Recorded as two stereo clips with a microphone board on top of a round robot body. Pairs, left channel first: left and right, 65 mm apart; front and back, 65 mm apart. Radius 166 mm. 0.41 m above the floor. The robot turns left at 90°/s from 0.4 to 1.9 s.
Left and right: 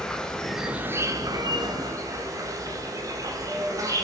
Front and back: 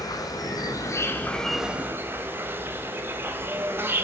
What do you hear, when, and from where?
0.0 s an insect: 10° left, 2.5 m; by 4.0 s 125° right, 2.5 m